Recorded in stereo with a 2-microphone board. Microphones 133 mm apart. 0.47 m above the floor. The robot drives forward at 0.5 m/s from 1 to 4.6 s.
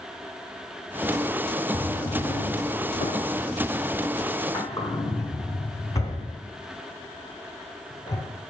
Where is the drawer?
35° left (ahead or behind), 0.7 m; by 8.2 s 25° left (ahead or behind), 1.0 m.